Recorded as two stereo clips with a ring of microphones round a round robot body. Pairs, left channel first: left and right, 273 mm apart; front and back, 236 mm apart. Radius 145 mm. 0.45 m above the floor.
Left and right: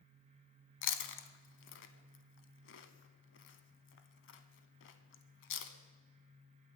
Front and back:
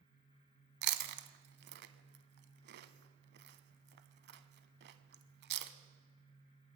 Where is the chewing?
135° left, 0.6 m.